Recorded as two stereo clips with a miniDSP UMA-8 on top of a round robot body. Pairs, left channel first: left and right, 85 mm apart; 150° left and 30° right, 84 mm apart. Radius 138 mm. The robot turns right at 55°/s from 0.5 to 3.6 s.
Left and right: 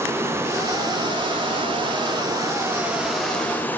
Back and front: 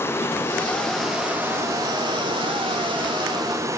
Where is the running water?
150° right, 2.5 m; by 3.8 s 20° left, 2.5 m.